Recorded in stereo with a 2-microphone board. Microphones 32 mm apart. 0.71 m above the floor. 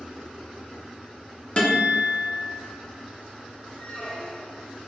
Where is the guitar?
40° left (ahead or behind), 1.9 m.